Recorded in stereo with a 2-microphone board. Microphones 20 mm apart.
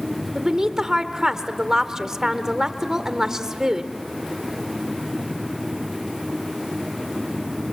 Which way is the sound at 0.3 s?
25° right (ahead or behind).